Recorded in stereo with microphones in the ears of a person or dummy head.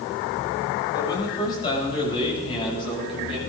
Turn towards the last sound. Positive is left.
turn(degrees=40)  # may be behind; listen again after turning